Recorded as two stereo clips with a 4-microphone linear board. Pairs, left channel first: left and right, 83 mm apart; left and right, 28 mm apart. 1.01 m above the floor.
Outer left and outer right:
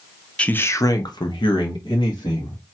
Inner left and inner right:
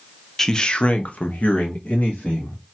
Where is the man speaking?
15° left (ahead or behind), 0.5 m; by 2.6 s 75° left (ahead or behind), 1.4 m.